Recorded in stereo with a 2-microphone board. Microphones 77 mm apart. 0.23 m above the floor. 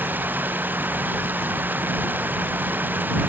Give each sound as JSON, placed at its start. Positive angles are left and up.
{"t": 0.0, "sound": "running water", "side_deg": -25}